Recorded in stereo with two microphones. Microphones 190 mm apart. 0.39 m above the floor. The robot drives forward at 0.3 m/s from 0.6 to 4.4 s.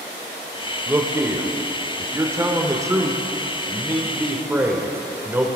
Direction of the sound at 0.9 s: 10° right (ahead or behind).